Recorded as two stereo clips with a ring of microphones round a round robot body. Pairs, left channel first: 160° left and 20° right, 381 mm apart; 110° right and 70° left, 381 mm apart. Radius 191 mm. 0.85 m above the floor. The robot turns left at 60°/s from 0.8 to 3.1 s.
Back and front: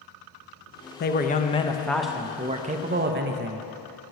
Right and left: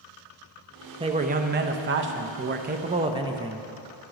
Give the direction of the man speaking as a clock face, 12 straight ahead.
8 o'clock.